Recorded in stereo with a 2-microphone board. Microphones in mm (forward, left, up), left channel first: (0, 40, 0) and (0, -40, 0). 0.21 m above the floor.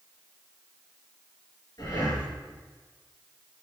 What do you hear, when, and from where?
1.8 s breathing: 50° left (ahead or behind), 3.5 m